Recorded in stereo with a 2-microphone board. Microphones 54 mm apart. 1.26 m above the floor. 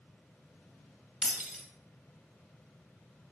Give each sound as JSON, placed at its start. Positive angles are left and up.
{"t": 1.2, "sound": "breaking glass", "side_deg": -5, "distance_m": 1.5}